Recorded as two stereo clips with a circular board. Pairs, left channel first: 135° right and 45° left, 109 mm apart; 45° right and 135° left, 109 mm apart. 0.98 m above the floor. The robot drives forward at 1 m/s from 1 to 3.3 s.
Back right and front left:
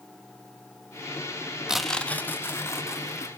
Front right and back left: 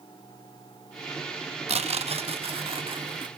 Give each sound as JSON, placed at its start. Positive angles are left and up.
{"t": 1.7, "sound": "tearing paper", "azimuth_deg": 130, "distance_m": 0.6}